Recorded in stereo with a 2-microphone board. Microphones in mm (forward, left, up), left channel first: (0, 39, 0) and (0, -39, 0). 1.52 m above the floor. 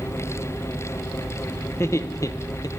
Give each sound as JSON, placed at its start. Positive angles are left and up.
{"t": 1.7, "sound": "laughter", "side_deg": 35, "distance_m": 1.2}